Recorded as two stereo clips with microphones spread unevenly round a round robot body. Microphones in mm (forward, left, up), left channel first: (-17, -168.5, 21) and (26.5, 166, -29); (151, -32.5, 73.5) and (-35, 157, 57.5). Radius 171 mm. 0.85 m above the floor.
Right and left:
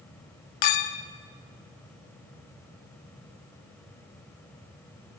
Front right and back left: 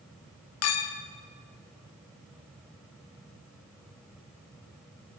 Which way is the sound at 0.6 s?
85° right.